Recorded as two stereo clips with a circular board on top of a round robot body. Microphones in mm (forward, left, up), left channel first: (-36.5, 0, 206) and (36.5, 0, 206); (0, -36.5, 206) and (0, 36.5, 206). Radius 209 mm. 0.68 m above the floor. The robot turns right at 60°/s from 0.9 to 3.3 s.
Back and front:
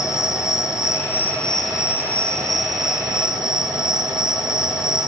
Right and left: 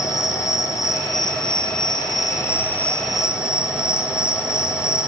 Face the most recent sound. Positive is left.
turn(degrees=10)